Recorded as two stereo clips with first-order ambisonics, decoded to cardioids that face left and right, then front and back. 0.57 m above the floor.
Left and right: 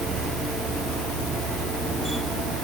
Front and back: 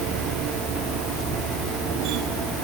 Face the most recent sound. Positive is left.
No sound to turn to.